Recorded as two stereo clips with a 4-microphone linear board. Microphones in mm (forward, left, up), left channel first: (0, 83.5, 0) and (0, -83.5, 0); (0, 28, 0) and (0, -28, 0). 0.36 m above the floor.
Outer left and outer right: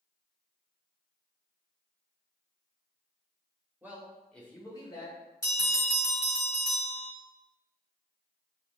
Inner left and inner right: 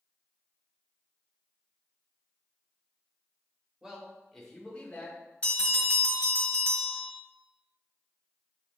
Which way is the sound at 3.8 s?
10° right (ahead or behind).